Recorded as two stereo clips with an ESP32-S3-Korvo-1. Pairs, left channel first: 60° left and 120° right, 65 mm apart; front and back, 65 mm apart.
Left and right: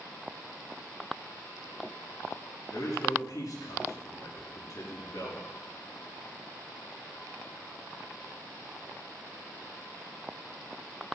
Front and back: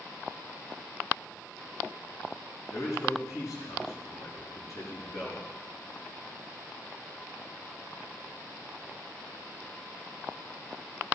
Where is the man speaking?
35° left, 6 m.